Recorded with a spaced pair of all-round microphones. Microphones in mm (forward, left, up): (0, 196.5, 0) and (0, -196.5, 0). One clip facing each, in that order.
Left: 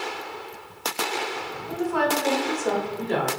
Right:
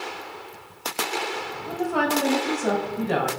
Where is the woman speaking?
75° right (ahead or behind), 2 m.